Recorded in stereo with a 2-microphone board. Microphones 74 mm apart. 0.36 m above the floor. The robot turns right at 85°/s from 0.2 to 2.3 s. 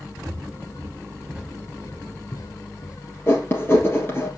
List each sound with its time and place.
0.3 s footsteps: 70° right (ahead or behind), 3 m; by 3.0 s 80° left, 1.8 m
3.3 s writing: 30° left (ahead or behind), 3 m